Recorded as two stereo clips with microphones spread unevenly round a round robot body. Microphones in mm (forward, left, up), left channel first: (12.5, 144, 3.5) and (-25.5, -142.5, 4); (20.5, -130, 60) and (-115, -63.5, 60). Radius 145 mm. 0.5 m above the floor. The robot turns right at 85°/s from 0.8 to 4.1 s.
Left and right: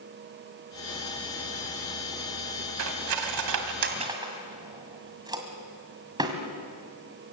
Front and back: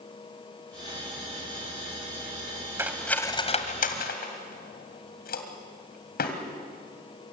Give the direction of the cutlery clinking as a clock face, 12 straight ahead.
4 o'clock.